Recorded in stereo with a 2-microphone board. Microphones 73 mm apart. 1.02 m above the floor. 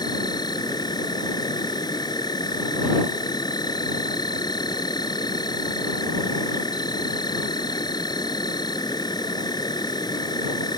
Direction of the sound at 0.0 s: 85° left.